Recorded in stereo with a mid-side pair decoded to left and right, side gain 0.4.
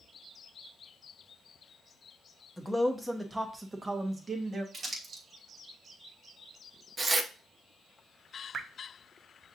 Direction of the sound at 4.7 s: 50° right.